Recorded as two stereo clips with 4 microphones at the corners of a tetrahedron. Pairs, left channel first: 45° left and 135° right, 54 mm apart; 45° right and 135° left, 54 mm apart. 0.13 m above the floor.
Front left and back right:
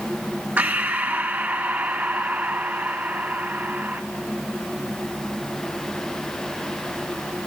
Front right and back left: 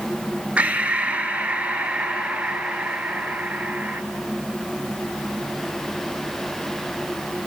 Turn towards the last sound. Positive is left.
turn(degrees=-175)